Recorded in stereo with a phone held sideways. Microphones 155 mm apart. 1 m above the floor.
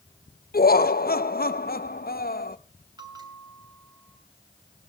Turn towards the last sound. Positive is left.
turn(degrees=-25)  # may be behind; listen again after turning